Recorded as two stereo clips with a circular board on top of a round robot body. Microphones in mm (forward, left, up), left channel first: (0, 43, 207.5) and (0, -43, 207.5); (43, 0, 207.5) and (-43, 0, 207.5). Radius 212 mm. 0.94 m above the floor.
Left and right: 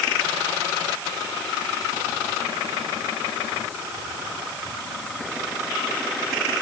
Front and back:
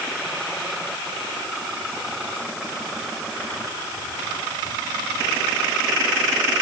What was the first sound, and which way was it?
Only background noise.